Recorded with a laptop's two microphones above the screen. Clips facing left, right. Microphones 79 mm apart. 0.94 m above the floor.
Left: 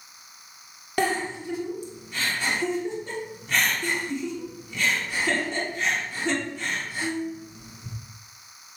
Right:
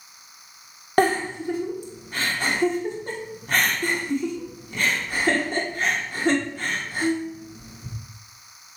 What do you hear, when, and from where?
1.0 s a giggle: 45° right (ahead or behind), 1.4 m